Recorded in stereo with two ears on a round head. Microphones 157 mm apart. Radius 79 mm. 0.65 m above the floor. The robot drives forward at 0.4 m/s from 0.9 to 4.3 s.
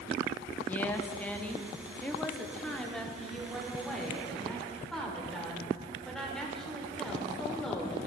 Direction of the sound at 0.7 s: 10° left (ahead or behind).